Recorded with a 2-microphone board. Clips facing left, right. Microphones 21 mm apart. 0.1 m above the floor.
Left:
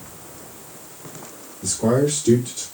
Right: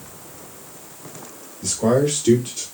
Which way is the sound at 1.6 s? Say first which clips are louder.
Right 1 dB; 50° right (ahead or behind).